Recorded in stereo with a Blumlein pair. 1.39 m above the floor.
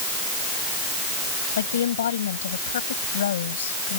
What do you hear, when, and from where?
1.6 s a woman speaking: 65° left